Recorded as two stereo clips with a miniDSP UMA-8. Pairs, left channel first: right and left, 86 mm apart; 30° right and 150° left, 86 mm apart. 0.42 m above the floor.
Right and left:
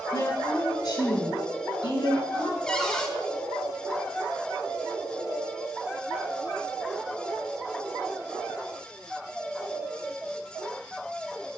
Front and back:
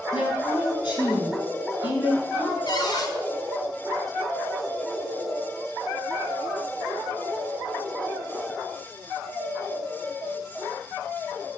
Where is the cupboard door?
10° right, 1.8 m.